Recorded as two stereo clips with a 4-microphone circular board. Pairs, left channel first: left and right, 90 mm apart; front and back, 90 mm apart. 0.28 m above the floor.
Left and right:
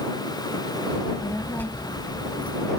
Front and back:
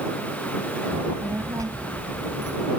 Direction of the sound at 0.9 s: 130° left.